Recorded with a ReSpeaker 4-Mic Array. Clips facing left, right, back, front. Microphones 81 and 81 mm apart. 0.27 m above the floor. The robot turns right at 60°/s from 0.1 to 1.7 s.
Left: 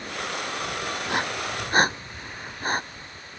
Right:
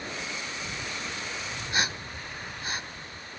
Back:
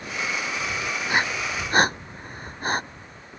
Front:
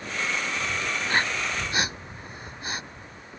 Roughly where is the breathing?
Left.